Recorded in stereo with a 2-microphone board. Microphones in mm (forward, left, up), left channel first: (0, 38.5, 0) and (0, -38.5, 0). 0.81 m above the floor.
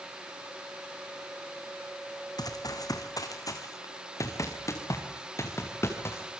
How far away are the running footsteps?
About 2.5 m.